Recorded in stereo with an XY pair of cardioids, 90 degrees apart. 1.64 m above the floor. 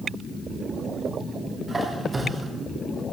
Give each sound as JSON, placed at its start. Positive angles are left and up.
{"t": 1.7, "sound": "a squeak", "azimuth_deg": -35, "distance_m": 4.0}